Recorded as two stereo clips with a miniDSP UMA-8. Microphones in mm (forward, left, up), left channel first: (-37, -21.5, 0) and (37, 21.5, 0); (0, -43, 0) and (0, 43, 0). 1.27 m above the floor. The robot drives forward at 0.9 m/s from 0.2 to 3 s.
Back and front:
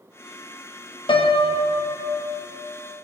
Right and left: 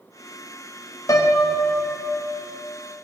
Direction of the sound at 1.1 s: 135° right.